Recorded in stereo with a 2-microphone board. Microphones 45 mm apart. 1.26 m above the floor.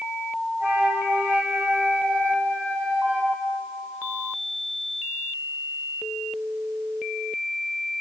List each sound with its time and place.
0.6 s a flute: 55° right (ahead or behind), 7 m